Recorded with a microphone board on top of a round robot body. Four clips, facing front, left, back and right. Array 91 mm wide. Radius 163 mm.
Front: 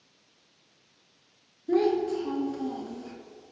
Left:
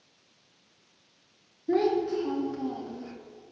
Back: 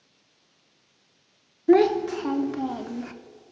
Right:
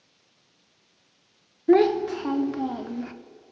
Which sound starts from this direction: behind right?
A child speaking, at 1.7 s.